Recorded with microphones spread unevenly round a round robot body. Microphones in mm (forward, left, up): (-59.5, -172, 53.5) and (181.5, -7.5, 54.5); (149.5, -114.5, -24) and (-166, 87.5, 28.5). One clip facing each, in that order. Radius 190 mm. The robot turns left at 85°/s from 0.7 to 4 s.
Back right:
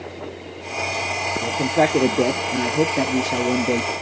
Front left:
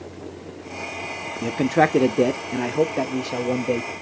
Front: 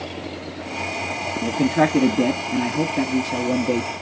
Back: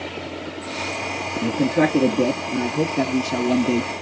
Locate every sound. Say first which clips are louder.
1.4 s a man speaking: front left 1 dB, even; 35° left, 0.5 m; by 3.9 s straight behind, 0.5 m